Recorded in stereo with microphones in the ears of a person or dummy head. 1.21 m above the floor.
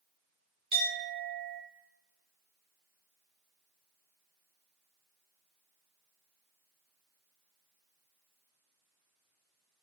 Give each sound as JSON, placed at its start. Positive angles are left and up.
{"t": 0.7, "sound": "a clink", "side_deg": -25, "distance_m": 0.9}